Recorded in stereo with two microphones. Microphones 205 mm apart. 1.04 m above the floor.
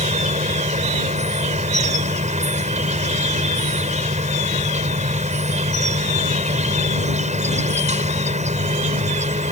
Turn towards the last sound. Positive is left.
turn(degrees=-35)  # may be behind; listen again after turning